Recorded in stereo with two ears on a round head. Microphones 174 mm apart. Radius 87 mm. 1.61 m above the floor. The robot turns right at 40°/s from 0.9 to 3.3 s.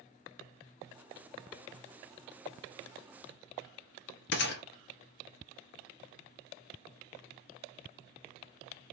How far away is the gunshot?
About 0.9 m.